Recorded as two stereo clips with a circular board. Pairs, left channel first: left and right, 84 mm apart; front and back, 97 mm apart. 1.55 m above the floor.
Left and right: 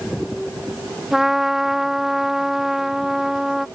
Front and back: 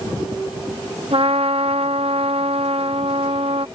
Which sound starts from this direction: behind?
A trumpet, at 1.1 s.